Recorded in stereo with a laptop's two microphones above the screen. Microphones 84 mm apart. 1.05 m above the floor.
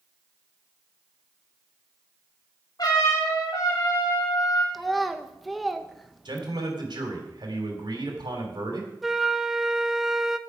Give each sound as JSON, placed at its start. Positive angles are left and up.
{"t": 2.8, "sound": "a trumpet", "side_deg": 50, "distance_m": 3.0}
{"t": 4.7, "sound": "a child speaking", "side_deg": 0, "distance_m": 0.7}
{"t": 6.2, "sound": "a man speaking", "side_deg": -60, "distance_m": 3.5}
{"t": 9.0, "sound": "a flute", "side_deg": 0, "distance_m": 0.8}